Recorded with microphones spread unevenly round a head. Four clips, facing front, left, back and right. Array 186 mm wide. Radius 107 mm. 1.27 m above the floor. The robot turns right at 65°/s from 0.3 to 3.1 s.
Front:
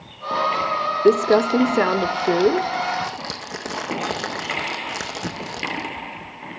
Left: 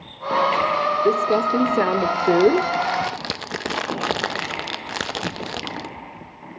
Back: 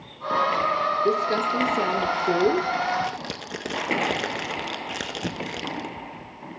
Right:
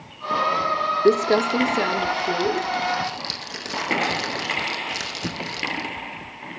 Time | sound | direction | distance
1.1 | crumpling | 30° right | 0.5 m